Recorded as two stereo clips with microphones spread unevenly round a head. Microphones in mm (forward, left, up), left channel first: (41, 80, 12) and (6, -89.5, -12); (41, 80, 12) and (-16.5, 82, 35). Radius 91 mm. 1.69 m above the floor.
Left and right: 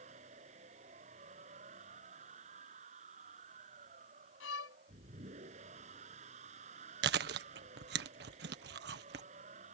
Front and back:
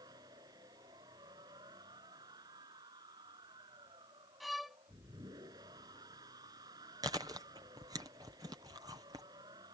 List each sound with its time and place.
0.0 s a machine running: 155° right
4.4 s a violin: 95° left
7.0 s chewing: 140° right